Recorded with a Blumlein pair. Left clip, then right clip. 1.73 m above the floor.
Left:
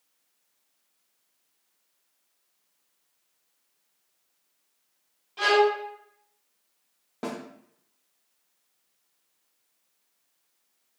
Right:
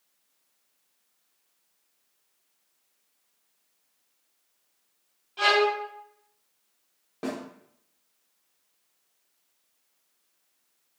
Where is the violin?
Straight ahead, 0.8 m.